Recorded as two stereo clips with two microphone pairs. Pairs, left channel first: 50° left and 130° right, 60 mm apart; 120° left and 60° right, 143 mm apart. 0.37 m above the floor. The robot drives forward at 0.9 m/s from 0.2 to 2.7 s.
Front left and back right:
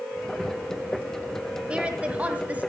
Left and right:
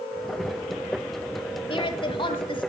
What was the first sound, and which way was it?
A woman speaking, 160° left.